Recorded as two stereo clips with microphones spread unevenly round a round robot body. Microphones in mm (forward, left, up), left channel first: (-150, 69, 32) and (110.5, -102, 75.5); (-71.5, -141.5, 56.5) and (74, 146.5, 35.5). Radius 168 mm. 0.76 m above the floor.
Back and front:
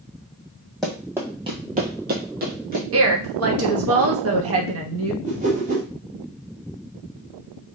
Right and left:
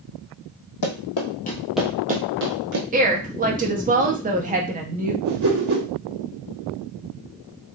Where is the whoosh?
35° left, 1.6 m.